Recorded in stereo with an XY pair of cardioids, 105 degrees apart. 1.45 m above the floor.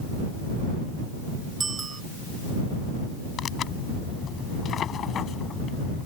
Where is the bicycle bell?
35° right.